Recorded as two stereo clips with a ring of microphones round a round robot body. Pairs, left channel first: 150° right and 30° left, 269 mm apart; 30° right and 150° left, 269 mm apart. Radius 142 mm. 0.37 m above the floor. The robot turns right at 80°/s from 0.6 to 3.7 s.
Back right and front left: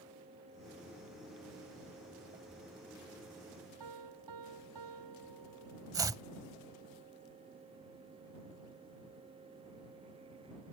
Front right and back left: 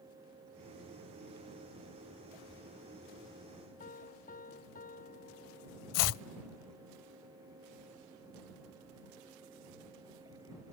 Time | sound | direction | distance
3.8 | a piano | 30° left | ?
5.9 | chopping | 50° right | ?